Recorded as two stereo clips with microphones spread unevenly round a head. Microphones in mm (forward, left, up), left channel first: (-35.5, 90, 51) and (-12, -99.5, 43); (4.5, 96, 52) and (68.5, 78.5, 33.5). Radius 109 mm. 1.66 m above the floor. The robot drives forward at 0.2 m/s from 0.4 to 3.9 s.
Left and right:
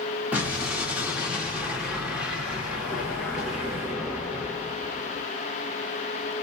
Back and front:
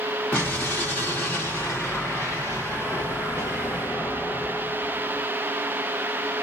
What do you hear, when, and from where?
0.3 s an explosion: 165° right, 1.4 m; by 5.3 s 170° right, 1.8 m